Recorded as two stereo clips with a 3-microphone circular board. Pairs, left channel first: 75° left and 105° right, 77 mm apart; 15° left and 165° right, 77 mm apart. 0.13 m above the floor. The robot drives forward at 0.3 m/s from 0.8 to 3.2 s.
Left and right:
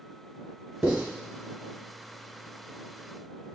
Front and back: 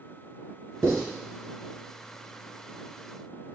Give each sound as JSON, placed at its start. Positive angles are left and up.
{"t": 0.8, "sound": "writing", "azimuth_deg": -175, "distance_m": 1.5}